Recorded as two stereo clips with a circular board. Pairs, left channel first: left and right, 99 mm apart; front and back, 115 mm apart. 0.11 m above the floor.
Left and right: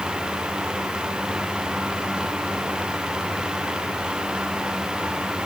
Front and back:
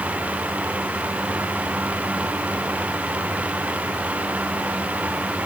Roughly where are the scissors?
No scissors in this recording.